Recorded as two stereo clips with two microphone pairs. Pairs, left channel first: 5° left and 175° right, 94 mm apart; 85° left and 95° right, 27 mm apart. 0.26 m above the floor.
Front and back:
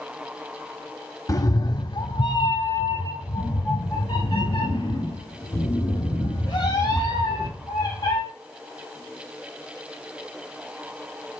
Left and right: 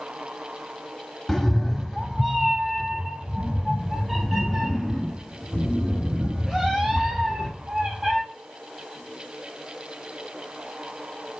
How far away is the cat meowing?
About 0.6 m.